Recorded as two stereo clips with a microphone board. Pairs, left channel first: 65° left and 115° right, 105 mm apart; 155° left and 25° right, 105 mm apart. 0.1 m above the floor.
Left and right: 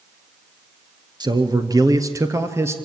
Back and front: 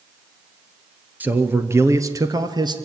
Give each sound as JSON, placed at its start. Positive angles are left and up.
{"t": 1.2, "sound": "a man speaking", "azimuth_deg": -90, "distance_m": 1.6}